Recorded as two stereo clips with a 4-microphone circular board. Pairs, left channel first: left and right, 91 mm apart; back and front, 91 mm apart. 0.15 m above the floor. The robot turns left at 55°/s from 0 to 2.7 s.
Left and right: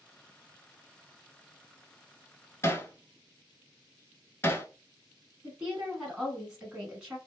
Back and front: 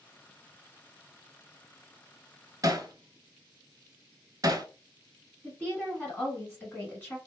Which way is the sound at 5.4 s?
155° right.